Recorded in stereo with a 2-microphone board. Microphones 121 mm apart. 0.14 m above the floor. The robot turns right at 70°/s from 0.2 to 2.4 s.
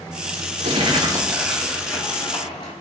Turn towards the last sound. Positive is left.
turn(degrees=55)